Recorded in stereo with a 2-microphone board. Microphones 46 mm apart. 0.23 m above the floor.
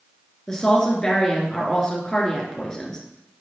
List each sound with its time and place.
0.5 s a woman speaking: 15° left (ahead or behind), 3 m